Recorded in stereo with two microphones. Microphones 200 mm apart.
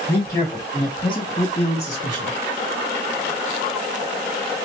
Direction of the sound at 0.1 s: 15° left (ahead or behind).